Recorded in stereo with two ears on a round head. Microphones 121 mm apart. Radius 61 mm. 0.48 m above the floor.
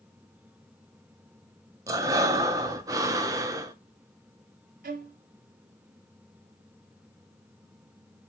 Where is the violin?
65° right (ahead or behind), 0.7 m.